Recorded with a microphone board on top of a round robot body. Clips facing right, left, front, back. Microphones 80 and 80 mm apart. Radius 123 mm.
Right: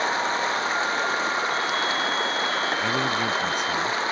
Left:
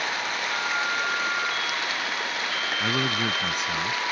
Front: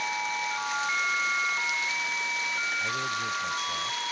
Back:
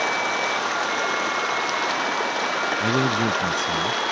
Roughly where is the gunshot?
No gunshot in this recording.